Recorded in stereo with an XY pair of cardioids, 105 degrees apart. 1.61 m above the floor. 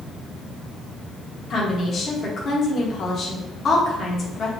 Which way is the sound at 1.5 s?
45° left.